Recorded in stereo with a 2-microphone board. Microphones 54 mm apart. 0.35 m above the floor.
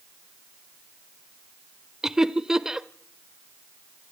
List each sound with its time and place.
2.0 s laughter: 10° right (ahead or behind), 0.9 m